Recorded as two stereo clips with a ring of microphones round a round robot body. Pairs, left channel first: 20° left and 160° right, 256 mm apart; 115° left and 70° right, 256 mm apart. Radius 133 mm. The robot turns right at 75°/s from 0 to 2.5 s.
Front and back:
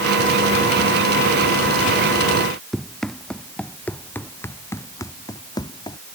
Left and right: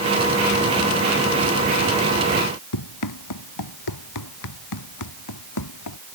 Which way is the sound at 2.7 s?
110° left.